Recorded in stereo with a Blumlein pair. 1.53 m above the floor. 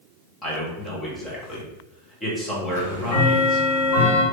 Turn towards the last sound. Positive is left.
turn(degrees=65)